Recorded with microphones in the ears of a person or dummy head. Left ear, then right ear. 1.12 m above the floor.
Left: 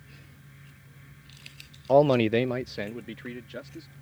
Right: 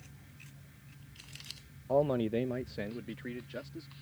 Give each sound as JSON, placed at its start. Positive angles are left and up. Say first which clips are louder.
{"t": 1.9, "sound": "a man speaking", "louder": "left 9 dB", "side_deg": 65}